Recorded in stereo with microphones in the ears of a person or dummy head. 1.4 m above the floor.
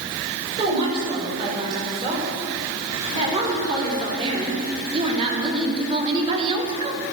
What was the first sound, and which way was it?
A woman speaking, 25° right (ahead or behind).